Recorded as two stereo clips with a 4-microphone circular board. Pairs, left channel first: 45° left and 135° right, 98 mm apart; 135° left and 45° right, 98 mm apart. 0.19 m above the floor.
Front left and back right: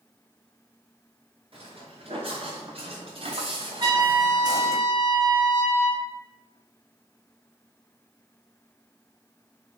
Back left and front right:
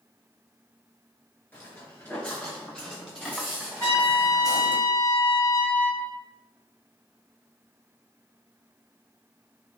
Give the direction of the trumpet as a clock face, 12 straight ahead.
6 o'clock.